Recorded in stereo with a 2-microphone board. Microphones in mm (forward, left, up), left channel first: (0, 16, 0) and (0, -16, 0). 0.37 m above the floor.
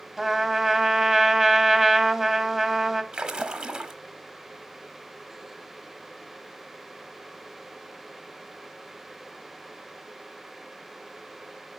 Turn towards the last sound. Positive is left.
turn(degrees=-25)  # may be behind; listen again after turning